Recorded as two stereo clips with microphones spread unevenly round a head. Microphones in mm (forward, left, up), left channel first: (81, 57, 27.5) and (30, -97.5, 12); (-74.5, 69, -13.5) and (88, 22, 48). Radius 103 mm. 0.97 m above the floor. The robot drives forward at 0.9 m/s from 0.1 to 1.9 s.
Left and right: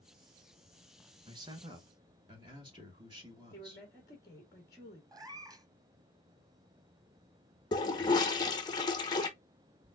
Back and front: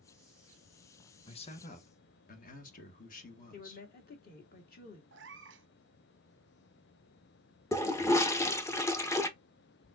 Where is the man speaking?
165° right, 0.7 m; by 3.9 s 175° right, 1.2 m.